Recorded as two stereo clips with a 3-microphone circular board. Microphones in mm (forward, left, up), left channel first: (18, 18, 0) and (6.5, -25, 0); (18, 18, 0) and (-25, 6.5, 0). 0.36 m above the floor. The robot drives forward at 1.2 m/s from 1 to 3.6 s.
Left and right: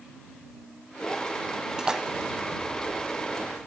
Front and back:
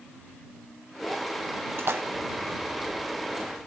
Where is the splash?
Straight behind, 1.2 m.